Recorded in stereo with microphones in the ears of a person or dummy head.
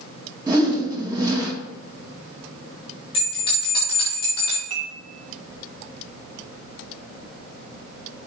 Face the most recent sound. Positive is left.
turn(degrees=-45)  # may be behind; listen again after turning